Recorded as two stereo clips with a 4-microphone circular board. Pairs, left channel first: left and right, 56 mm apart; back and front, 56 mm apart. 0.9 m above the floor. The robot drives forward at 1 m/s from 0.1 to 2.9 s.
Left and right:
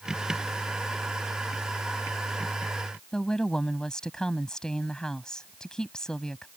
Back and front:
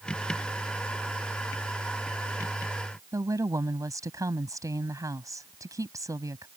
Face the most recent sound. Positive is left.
turn(degrees=10)